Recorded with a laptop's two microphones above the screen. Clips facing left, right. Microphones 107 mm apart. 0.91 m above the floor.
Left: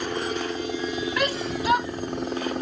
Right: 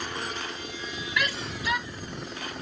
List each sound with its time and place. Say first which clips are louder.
0.0 s a helicopter: left 7 dB; 45° left (ahead or behind); by 2.6 s 50° left (ahead or behind)
1.2 s a shout: left 2 dB; 40° left (ahead or behind)